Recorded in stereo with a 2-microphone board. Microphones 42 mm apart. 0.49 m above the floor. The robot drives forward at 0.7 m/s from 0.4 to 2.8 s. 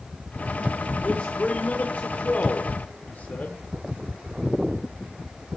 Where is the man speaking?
30° left (ahead or behind), 1.3 m; by 3.6 s 40° left (ahead or behind), 1.0 m.